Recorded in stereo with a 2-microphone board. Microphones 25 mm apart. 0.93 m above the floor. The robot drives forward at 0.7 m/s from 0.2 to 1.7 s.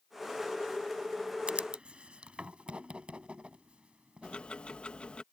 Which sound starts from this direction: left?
Ticking, at 4.2 s.